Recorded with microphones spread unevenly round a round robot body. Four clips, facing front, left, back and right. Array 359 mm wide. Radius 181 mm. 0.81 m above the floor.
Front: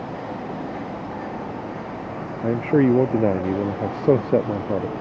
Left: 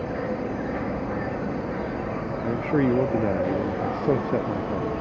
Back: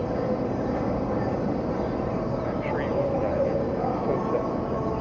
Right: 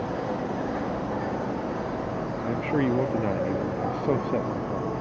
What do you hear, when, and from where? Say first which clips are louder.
0.0 s an insect: left 1 dB, back 4 dB; 160° left
2.4 s a man speaking: left 3 dB, front 9 dB; 10° left